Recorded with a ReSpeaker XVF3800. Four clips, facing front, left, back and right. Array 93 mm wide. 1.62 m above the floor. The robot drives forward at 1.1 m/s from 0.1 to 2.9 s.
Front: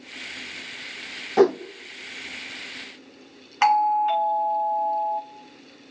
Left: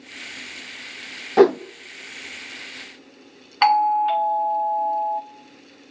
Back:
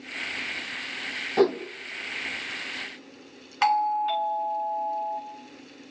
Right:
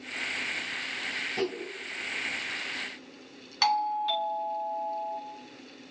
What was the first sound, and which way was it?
A whoosh, 75° left.